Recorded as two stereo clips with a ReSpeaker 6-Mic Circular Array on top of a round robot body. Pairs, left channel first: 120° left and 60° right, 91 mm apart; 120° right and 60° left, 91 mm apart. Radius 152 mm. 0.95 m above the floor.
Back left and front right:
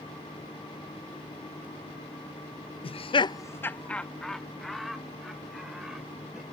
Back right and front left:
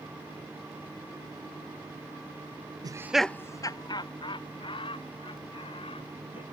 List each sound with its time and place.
2.8 s laughter: 105° left; by 6.4 s 145° right